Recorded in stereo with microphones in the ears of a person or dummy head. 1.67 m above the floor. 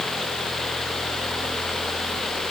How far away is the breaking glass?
I don't hear breaking glass.